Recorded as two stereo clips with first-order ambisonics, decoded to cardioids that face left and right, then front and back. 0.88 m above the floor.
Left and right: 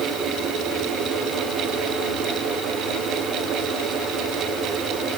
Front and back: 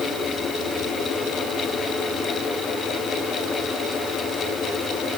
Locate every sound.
Only background noise.